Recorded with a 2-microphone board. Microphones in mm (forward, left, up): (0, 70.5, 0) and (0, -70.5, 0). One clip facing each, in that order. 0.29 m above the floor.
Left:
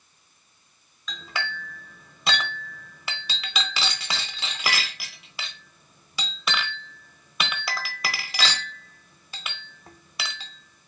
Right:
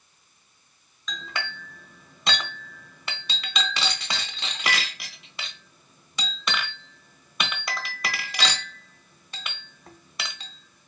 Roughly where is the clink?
Centre.